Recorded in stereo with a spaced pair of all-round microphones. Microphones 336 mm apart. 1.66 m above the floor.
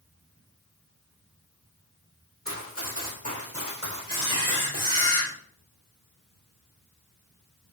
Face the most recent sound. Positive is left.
turn(degrees=-15)  # may be behind; listen again after turning